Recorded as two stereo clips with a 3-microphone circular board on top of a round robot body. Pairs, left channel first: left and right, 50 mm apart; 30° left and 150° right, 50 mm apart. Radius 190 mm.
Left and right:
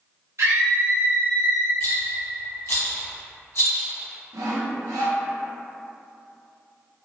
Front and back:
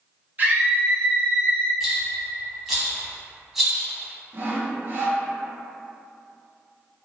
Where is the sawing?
95° right, 0.6 m.